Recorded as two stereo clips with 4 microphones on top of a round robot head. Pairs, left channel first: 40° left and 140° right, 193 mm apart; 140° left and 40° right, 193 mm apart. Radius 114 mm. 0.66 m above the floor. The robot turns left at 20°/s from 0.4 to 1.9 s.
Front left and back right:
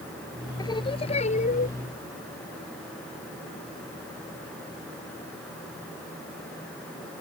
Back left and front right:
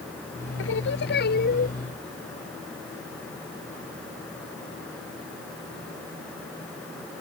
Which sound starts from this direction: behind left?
Singing, at 0.6 s.